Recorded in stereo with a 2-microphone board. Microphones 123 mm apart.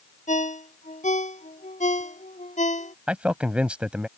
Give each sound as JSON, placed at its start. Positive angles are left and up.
{"t": 0.3, "sound": "a ringtone", "side_deg": 75}
{"t": 3.1, "sound": "a man speaking", "side_deg": -10}